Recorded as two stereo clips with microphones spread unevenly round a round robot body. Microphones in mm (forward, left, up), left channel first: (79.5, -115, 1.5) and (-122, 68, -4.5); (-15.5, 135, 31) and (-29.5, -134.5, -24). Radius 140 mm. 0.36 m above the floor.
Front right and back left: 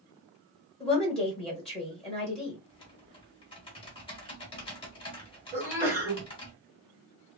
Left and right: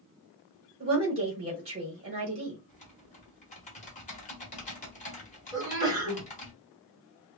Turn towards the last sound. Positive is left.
turn(degrees=-145)